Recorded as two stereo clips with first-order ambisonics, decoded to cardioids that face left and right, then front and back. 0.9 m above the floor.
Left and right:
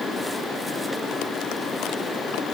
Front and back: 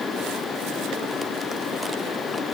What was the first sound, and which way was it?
Only background noise.